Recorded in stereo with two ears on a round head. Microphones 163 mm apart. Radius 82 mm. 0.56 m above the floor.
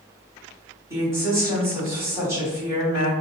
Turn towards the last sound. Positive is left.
turn(degrees=-15)  # may be behind; listen again after turning